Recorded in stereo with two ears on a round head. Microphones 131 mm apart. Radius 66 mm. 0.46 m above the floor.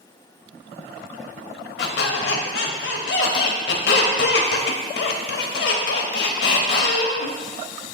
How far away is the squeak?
About 0.8 m.